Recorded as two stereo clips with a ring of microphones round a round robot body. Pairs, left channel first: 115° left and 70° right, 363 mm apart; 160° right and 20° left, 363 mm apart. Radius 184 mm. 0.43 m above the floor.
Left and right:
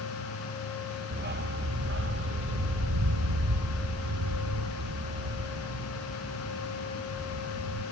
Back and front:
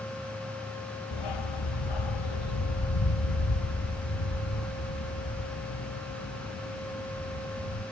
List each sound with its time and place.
1.1 s a dog barking: 135° right; by 7.8 s 110° right